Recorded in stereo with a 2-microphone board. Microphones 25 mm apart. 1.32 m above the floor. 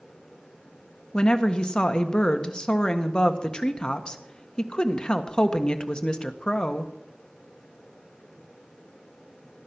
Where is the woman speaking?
30° left (ahead or behind), 1.5 m.